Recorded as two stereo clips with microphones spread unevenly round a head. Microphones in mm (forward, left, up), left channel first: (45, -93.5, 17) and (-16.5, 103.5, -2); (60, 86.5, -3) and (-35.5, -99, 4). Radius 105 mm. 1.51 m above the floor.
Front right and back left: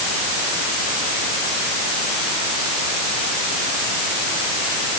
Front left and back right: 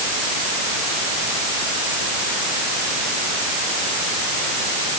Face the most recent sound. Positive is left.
No sound to turn to.